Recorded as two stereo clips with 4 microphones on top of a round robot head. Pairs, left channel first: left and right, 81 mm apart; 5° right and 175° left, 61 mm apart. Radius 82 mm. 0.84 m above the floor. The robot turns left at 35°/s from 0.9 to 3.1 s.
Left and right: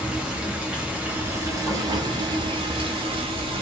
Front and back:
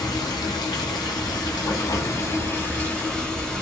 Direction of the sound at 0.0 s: 10° right.